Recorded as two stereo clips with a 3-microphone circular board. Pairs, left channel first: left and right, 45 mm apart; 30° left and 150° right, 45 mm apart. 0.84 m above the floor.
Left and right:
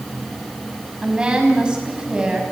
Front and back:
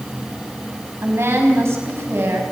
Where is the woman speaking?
155° right, 6 m.